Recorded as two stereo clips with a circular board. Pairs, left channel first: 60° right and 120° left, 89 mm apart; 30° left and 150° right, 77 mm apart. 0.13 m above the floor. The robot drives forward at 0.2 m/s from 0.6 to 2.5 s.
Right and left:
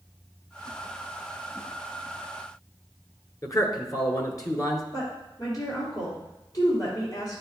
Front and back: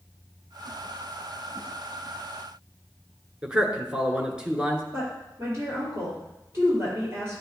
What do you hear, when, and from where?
3.4 s a man speaking: 75° right, 1.4 m
4.9 s a woman speaking: 100° right, 3.5 m